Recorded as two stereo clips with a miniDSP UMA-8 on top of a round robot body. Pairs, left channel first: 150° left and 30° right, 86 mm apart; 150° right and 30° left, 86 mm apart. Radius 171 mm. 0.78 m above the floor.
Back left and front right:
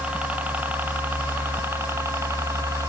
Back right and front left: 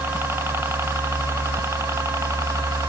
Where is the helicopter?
25° left; by 2.9 s straight ahead.